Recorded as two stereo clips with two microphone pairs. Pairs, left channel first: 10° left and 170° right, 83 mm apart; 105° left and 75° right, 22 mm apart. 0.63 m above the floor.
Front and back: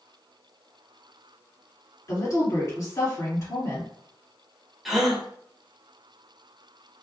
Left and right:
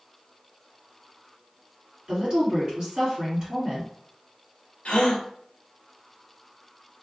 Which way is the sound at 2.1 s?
25° right.